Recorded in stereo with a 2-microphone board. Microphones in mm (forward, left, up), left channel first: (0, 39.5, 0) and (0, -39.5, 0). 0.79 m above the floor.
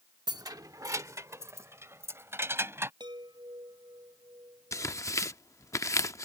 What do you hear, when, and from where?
0.3 s keys jangling: 60° right (ahead or behind); by 2.9 s 30° right (ahead or behind)
3.0 s a chime: 70° right (ahead or behind)
4.7 s tearing paper: 40° left (ahead or behind)